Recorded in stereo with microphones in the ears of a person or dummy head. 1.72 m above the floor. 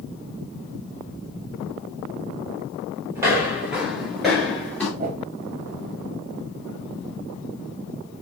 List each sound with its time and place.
3.1 s footsteps: 15° right (ahead or behind), 1.8 m; by 4.9 s 10° left (ahead or behind), 2 m
5.0 s a whoosh: 40° right (ahead or behind), 0.8 m